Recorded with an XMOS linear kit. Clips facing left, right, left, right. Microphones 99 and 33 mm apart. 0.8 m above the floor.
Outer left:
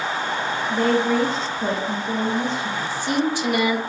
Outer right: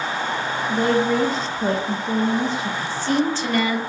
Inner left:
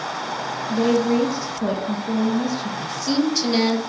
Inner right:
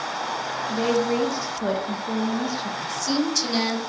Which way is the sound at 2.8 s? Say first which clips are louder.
Outer right 2 dB, inner left 3 dB; 15° left (ahead or behind).